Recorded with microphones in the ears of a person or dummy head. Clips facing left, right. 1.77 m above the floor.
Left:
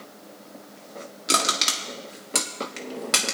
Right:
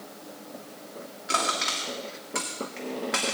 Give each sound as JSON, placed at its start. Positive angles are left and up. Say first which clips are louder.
{"t": 1.3, "sound": "crushing", "louder": "left 2 dB", "side_deg": 55, "distance_m": 1.8}